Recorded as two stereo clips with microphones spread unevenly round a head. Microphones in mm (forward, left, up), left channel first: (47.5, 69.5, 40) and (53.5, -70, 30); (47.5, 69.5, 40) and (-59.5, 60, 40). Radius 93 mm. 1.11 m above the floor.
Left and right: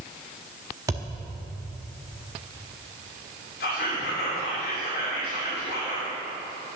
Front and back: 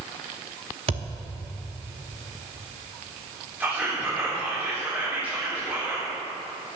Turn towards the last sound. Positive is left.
turn(degrees=110)